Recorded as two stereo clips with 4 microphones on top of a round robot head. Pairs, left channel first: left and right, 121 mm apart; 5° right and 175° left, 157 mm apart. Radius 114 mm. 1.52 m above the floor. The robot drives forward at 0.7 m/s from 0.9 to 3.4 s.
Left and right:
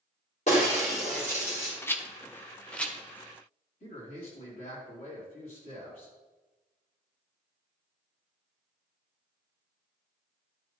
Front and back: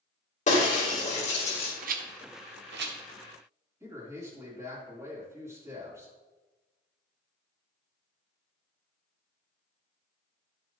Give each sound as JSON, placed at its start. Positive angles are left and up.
{"t": 0.5, "sound": "breaking glass", "azimuth_deg": 35, "distance_m": 3.0}
{"t": 1.8, "sound": "a rattle", "azimuth_deg": 155, "distance_m": 0.6}
{"t": 3.8, "sound": "a man speaking", "azimuth_deg": 105, "distance_m": 4.5}